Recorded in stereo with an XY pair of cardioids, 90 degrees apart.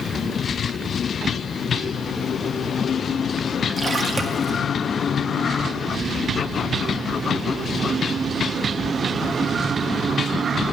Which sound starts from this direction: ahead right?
A splash, at 3.8 s.